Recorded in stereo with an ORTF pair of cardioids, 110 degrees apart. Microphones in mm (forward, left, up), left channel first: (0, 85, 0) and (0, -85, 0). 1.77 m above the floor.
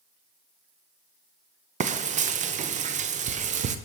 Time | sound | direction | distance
1.8 | frying | 45° right | 0.8 m